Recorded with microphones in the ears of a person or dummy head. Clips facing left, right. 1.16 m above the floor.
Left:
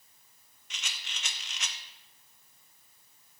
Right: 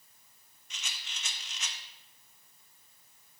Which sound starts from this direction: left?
A rattle, at 0.7 s.